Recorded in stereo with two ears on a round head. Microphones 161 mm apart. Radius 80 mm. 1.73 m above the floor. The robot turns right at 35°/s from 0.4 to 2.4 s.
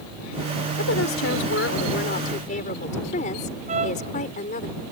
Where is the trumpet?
40° right (ahead or behind).